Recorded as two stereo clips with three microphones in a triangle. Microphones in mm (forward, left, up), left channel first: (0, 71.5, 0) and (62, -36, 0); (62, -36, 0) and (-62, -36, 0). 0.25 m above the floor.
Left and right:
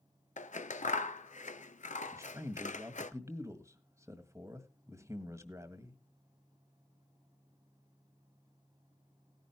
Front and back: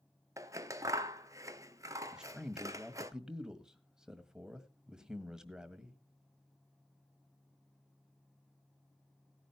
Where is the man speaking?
100° right, 1.6 m.